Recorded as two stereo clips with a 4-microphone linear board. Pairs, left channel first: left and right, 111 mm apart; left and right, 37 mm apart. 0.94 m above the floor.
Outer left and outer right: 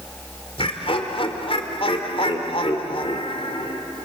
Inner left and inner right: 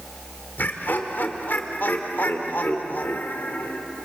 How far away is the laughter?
About 3 m.